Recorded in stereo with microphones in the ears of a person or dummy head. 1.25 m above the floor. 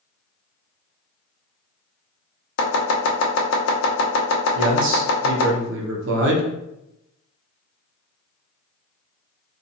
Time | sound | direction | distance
2.6 | chopping | 70° left (ahead or behind) | 0.7 m
4.5 | a man speaking | 70° right (ahead or behind) | 0.8 m